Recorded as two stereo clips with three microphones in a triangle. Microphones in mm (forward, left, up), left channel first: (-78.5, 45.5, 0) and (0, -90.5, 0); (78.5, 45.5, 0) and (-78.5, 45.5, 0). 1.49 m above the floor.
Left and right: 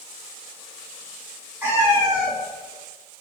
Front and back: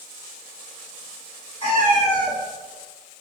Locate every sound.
1.6 s a cat meowing: straight ahead, 1.1 m